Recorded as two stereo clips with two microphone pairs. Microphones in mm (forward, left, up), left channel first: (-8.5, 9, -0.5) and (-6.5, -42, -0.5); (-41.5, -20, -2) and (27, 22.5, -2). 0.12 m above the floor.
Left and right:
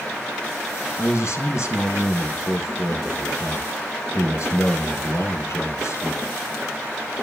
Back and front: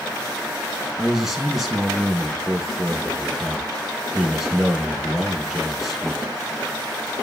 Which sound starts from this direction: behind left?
A man speaking, at 1.0 s.